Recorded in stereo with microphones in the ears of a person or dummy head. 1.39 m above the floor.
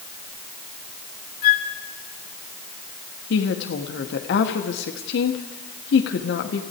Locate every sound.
1.4 s a flute: 70° left (ahead or behind), 2.5 m
3.3 s a woman speaking: 85° left, 2.0 m